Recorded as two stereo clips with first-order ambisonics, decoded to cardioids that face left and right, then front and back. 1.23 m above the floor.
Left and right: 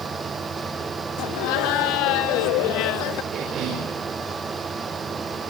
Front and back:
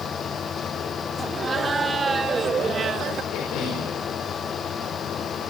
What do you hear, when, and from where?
1.2 s laughter: 105° left, 3 m; by 3.2 s 120° left, 1.0 m
3.3 s a cough: 35° right, 6.5 m